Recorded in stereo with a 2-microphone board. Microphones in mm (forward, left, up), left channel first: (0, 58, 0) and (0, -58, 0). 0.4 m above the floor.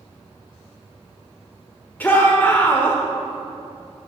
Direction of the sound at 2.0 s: 15° left (ahead or behind).